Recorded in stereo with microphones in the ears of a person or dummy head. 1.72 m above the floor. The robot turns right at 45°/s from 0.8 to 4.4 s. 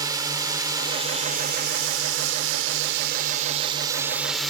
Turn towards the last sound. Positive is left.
turn(degrees=0)